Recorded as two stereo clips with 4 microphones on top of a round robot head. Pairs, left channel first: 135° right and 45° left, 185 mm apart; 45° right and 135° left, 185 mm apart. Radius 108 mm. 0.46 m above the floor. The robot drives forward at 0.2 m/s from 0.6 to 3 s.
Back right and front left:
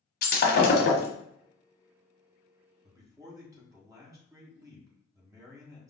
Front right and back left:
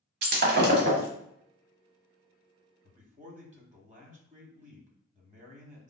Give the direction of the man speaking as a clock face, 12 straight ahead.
8 o'clock.